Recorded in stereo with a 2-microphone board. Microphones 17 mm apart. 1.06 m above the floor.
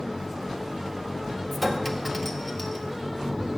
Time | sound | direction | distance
1.5 | a clink | 5° left (ahead or behind) | 1.5 m